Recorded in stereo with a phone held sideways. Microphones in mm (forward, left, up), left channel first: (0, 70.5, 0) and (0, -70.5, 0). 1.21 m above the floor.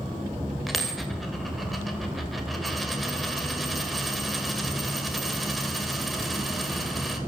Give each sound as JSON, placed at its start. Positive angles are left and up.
{"t": 0.7, "sound": "a dropped coin", "side_deg": 0, "distance_m": 2.5}